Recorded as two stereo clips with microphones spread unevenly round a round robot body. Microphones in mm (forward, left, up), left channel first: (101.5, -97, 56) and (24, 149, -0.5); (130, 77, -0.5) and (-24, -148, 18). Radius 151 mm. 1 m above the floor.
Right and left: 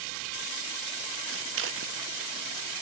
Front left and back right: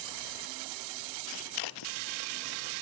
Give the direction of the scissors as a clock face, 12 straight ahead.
10 o'clock.